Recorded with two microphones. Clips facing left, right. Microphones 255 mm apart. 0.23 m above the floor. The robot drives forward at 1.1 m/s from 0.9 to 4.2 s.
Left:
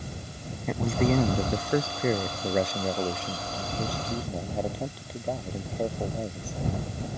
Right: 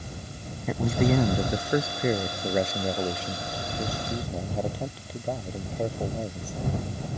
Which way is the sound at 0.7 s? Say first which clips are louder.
Right 1 dB; 5° right (ahead or behind).